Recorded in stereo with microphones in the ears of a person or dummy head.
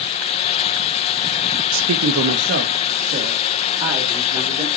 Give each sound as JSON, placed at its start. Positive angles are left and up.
{"t": 1.7, "sound": "a man speaking", "side_deg": -85, "distance_m": 0.8}